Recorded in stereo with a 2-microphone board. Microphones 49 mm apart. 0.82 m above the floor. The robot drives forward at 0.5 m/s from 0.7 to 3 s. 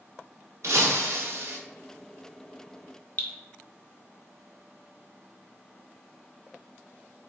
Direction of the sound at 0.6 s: 80° right.